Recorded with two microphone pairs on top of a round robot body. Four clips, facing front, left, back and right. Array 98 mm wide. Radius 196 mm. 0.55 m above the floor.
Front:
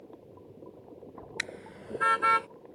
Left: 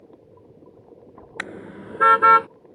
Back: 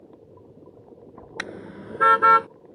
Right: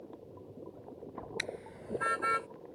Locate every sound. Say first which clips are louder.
1.4 s a car horn: left 7 dB, back 7 dB; 120° left; by 2.5 s 110° left